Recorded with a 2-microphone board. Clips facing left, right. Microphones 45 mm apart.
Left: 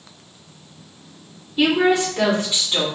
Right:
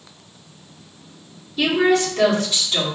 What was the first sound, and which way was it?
A woman speaking, 20° left (ahead or behind).